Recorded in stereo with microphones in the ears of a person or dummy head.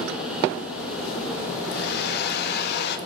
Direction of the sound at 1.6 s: 60° left (ahead or behind).